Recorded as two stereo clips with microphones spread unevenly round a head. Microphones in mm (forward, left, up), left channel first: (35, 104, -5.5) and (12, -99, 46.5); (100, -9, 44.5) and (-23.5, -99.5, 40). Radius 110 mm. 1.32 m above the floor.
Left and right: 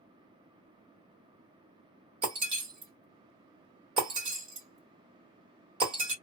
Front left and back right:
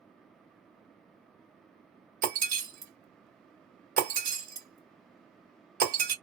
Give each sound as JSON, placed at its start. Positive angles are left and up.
{"t": 2.2, "sound": "breaking glass", "azimuth_deg": -145, "distance_m": 1.5}